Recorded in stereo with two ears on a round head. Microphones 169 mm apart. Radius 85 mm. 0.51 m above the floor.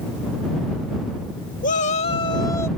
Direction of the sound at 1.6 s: 45° left (ahead or behind).